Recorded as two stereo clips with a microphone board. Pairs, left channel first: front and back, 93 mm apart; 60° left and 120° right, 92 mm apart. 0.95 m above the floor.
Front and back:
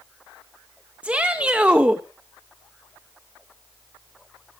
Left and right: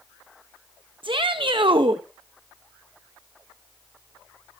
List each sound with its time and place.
1.0 s a shout: 105° right, 0.7 m